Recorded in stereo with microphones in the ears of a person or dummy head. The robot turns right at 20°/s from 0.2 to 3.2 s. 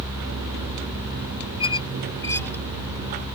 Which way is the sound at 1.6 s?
30° left (ahead or behind).